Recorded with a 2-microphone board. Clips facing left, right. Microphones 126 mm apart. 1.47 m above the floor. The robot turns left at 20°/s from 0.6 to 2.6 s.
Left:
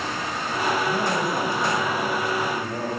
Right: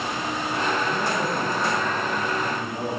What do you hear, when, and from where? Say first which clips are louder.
0.9 s a man speaking: left 1 dB; 120° left, 8 m; by 2.9 s 85° left, 8 m